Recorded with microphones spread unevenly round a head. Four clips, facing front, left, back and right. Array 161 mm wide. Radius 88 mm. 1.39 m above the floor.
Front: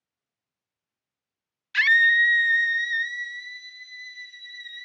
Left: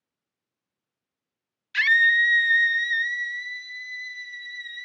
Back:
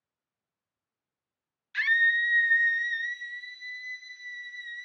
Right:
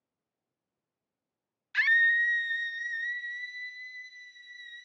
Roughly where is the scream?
Ahead.